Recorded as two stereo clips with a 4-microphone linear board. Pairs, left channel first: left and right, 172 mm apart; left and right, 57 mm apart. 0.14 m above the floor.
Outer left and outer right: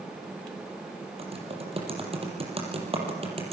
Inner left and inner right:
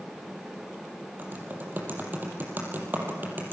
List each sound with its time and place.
1.2 s typing on a keyboard: 35° right (ahead or behind), 5.5 m